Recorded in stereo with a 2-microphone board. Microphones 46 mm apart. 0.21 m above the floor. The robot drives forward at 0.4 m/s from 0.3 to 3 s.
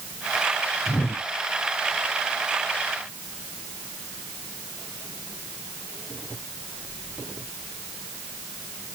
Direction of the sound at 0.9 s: 65° left (ahead or behind).